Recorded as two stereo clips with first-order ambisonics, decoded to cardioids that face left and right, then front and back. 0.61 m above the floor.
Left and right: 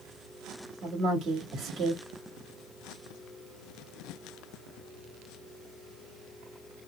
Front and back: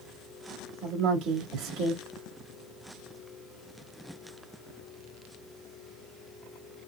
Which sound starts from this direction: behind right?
A woman speaking, at 0.8 s.